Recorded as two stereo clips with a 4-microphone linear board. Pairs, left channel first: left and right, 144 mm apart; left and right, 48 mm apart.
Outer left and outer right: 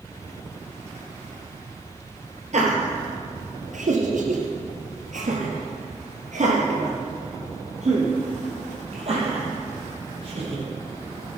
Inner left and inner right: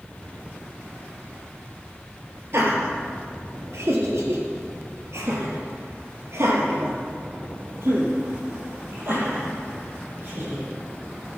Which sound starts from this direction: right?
Laughter, at 2.5 s.